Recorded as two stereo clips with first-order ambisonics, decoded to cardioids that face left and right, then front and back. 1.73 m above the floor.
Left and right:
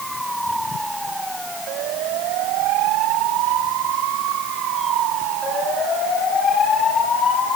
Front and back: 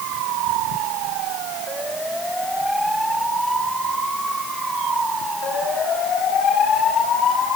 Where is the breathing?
I don't hear breathing.